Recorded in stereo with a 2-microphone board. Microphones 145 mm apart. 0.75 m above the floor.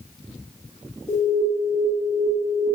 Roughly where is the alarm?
Left.